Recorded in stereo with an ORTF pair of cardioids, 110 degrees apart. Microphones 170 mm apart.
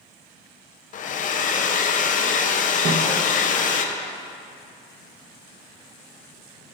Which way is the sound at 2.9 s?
45° right.